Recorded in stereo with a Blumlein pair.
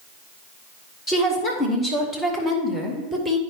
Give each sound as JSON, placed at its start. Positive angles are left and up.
{"t": 1.1, "sound": "a woman speaking", "azimuth_deg": 20, "distance_m": 2.5}